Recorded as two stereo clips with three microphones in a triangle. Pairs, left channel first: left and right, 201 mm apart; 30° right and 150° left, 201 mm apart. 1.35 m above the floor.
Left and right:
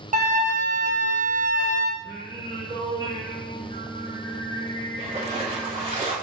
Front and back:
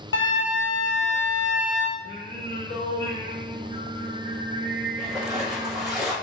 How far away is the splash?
About 1.4 m.